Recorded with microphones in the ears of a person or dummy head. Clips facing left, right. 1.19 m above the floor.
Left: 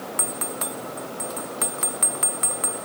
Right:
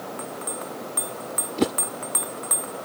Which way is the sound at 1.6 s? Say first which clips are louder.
Right 11 dB; 80° right.